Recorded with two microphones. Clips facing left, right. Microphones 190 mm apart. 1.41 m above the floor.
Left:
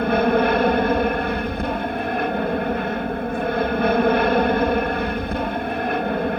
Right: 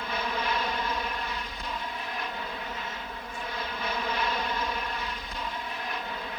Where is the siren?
No siren in this recording.